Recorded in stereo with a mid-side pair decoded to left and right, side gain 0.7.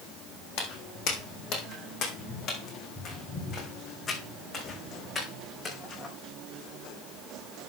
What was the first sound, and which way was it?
Footsteps, 60° left.